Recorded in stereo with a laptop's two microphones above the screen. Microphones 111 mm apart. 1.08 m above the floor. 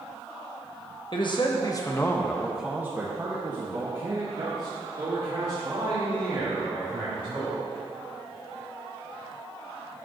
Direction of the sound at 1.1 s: 50° left (ahead or behind).